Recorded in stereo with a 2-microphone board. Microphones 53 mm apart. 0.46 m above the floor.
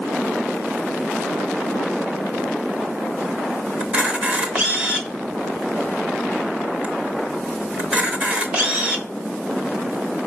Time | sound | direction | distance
3.8 | a camera shutter | 25° right (ahead or behind) | 1.0 m